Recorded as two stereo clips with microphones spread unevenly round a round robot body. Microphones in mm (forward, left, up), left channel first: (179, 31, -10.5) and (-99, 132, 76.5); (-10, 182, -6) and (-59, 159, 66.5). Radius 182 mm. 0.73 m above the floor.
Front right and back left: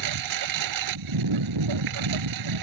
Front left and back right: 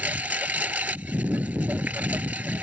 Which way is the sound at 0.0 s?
160° left.